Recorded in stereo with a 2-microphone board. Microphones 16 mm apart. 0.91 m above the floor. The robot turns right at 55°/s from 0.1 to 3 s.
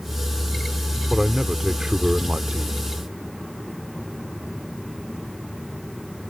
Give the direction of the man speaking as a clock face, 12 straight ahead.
6 o'clock.